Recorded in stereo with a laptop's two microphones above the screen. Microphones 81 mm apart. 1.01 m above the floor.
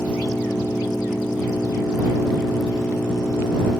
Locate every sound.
0.0 s an engine running: 15° left (ahead or behind)